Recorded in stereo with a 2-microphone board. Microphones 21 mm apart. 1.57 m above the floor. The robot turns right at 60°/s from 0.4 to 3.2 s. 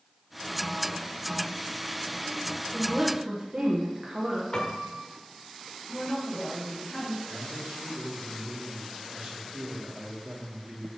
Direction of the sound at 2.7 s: 5° right (ahead or behind).